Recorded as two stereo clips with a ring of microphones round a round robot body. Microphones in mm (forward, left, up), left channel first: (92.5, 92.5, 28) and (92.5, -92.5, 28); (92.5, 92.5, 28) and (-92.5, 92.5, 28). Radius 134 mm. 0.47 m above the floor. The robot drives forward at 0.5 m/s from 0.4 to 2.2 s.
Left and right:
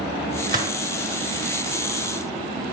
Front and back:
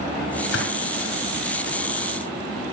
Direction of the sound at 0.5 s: 50° right.